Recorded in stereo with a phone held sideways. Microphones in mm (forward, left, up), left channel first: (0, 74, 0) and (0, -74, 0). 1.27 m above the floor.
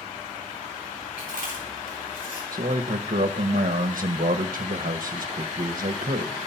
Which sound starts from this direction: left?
Chewing, at 1.2 s.